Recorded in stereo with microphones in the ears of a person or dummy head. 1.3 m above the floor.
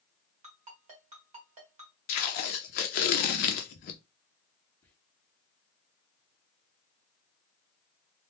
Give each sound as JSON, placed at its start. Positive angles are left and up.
{"t": 0.4, "sound": "a ringtone", "side_deg": -30, "distance_m": 1.2}
{"t": 2.1, "sound": "tape being pulled", "side_deg": 45, "distance_m": 0.5}
{"t": 4.8, "sound": "whispering", "side_deg": 10, "distance_m": 0.7}